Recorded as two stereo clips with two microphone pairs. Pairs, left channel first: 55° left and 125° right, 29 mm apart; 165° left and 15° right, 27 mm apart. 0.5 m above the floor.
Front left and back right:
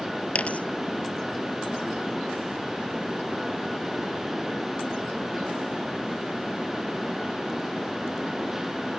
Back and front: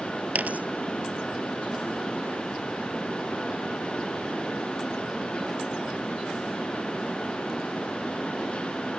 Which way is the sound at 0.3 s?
10° left.